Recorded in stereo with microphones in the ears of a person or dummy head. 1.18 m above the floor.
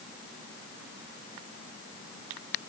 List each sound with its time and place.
Only background noise.